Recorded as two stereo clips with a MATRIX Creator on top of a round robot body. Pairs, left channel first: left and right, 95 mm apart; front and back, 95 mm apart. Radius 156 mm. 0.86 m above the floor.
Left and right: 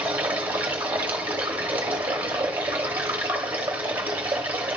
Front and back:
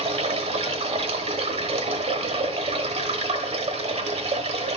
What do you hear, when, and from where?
0.0 s running water: 165° right, 0.9 m